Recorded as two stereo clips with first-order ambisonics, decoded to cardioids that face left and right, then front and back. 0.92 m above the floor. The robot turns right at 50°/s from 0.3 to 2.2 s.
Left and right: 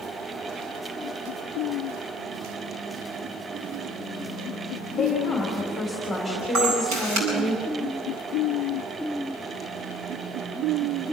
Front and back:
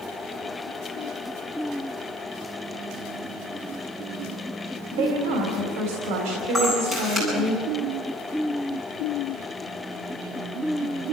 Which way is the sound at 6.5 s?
105° right.